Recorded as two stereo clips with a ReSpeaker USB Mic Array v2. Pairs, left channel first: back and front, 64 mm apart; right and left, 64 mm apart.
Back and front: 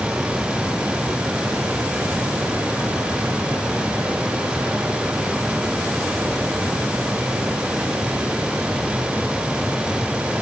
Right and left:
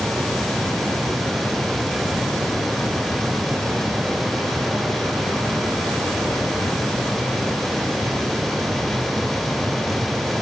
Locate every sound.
Only background noise.